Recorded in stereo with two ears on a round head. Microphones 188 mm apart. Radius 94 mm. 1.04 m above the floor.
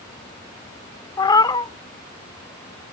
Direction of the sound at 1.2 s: 20° left (ahead or behind).